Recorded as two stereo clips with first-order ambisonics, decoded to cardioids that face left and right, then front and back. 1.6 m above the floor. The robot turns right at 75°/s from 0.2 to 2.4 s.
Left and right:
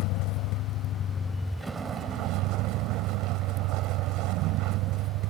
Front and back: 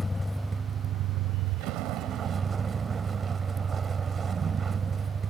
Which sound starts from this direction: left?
A vehicle, at 0.0 s.